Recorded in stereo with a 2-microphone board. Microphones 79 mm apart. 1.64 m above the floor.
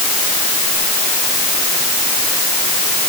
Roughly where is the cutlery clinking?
I don't hear cutlery clinking.